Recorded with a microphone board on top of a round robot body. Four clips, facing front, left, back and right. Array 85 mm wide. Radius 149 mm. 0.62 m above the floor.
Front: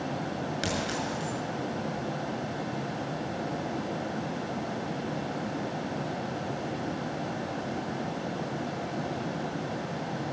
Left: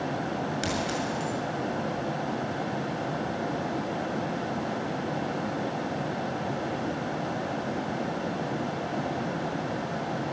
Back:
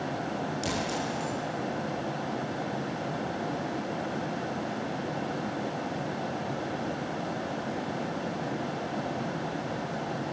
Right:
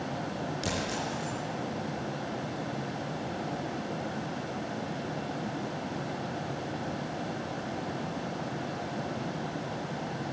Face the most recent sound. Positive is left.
turn(degrees=35)